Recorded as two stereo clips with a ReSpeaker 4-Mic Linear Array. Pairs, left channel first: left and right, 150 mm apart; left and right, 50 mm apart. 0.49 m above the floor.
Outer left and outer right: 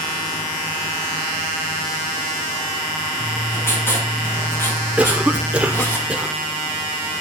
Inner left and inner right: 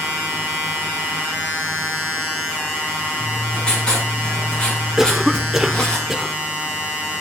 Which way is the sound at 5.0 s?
10° right (ahead or behind).